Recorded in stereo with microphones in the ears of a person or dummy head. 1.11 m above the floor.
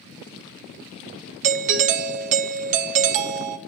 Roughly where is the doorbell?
Right.